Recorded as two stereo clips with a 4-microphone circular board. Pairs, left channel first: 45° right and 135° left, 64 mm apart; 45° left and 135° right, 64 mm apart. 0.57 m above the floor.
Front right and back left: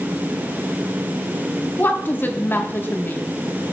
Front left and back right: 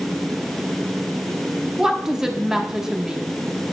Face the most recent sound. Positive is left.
turn(degrees=-60)